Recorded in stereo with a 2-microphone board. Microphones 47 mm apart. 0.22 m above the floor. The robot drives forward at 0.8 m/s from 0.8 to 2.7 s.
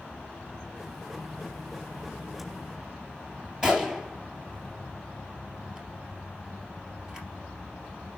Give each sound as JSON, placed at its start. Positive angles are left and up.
{"t": 3.6, "sound": "a gunshot", "side_deg": -10, "distance_m": 3.0}